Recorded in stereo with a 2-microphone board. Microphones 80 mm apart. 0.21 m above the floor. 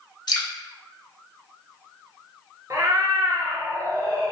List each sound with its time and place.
0.3 s dripping: 65° left (ahead or behind), 0.6 m
2.7 s a cat meowing: 50° right (ahead or behind), 0.6 m